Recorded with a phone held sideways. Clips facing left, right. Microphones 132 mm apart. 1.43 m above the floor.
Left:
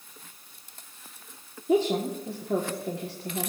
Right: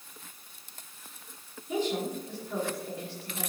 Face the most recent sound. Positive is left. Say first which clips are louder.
# left 6 dB
turn(degrees=80)